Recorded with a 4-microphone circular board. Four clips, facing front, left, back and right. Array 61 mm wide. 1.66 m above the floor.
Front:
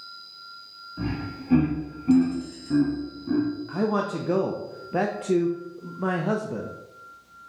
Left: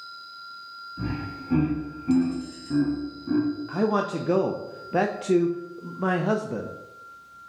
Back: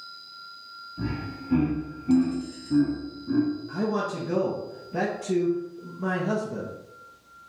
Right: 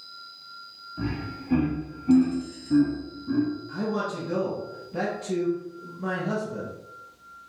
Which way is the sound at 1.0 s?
Straight ahead.